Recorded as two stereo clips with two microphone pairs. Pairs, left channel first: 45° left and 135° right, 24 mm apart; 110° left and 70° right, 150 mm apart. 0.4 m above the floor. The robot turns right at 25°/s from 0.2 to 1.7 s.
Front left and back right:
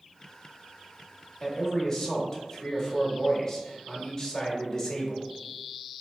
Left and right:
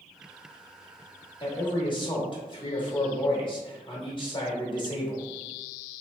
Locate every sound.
1.4 s a man speaking: 95° left, 0.9 m; by 5.3 s 100° left, 0.9 m